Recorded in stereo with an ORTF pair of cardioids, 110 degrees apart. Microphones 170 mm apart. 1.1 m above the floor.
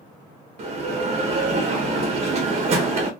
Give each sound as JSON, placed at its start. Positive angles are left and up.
{"t": 0.6, "sound": "a bell", "azimuth_deg": -40, "distance_m": 1.0}